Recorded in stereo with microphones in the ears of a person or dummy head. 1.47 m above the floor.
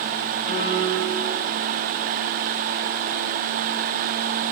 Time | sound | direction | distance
0.5 | a piano | 50° left (ahead or behind) | 10 m